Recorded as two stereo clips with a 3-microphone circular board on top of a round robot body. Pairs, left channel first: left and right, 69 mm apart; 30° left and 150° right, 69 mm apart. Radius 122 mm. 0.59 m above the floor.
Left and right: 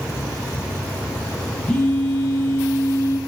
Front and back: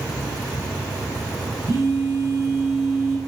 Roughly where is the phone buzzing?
Behind.